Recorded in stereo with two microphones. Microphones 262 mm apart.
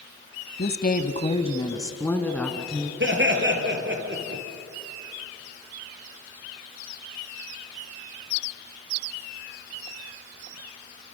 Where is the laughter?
40° right (ahead or behind), 3.5 m.